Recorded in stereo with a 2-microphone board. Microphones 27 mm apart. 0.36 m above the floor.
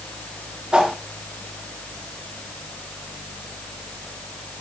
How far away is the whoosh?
About 2.5 m.